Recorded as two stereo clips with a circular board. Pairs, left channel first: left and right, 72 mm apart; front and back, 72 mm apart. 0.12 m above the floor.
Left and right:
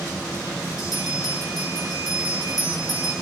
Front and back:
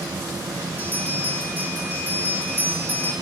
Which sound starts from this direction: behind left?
A bell, at 0.8 s.